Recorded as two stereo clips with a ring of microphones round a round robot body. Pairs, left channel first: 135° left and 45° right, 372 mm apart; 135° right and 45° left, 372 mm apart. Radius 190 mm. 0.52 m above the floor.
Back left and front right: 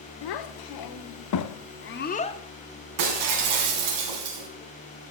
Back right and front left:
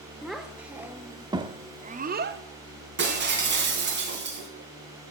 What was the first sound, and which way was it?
A child speaking, 135° left.